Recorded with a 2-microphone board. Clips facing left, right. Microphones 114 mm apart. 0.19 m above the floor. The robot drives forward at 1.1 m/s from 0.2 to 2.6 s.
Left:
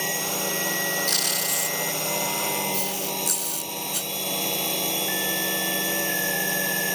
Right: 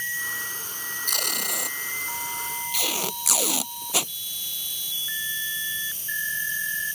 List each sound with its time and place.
0.0 s a drone: 70° left (ahead or behind)
1.1 s tape being pulled: 50° right (ahead or behind); by 4.1 s 80° right